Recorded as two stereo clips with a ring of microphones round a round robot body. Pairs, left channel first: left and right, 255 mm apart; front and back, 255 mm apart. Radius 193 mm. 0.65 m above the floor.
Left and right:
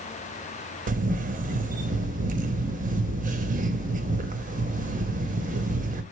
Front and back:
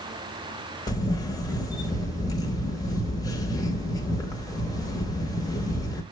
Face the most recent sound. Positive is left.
turn(degrees=-65)